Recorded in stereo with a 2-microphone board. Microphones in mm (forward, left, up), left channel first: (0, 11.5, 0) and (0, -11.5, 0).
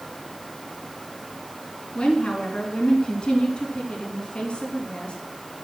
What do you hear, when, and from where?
1.9 s a woman speaking: 40° left (ahead or behind), 3 m